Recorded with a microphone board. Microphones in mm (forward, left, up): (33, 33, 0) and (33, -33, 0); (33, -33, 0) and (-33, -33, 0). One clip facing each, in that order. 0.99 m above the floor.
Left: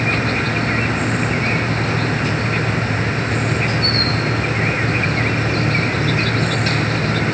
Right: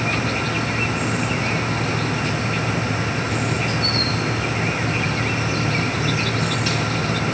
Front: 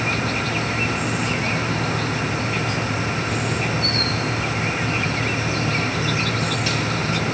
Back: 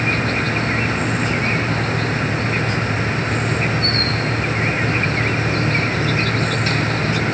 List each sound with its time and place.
0.0 s an insect: 135° left